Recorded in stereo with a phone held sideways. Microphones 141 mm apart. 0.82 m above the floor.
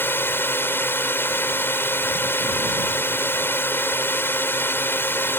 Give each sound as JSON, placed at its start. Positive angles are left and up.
{"t": 0.0, "sound": "a drone", "side_deg": 15}